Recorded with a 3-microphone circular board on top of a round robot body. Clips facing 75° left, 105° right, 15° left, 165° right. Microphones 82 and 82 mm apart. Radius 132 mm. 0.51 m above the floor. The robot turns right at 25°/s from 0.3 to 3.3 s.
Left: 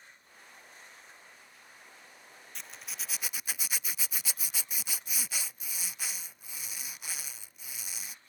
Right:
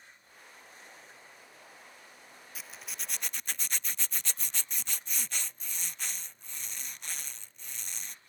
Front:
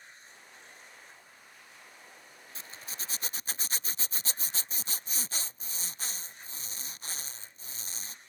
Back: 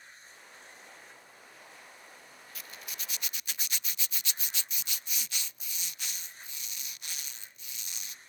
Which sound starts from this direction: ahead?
A zipper, at 2.5 s.